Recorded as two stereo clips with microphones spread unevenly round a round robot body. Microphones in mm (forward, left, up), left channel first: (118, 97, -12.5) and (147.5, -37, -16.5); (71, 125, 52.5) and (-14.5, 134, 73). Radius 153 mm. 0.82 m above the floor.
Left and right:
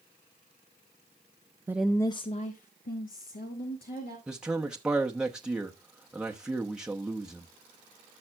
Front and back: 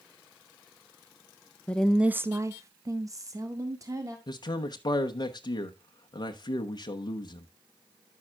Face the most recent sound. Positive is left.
turn(degrees=5)